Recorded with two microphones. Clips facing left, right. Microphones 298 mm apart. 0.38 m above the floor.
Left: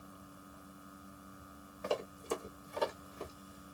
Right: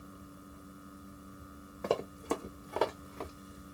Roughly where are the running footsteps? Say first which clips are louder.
Right 4 dB; right.